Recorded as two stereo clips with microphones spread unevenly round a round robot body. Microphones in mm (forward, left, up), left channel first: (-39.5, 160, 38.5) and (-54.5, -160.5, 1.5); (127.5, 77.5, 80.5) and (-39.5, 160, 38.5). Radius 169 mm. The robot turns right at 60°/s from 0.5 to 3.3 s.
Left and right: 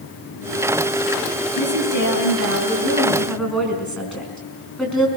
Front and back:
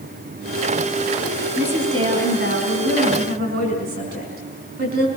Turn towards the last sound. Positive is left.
turn(degrees=175)